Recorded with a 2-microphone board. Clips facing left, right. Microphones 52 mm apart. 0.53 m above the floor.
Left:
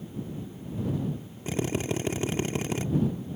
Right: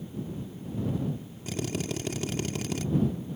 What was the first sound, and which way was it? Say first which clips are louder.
A drill: left 3 dB; 30° left (ahead or behind).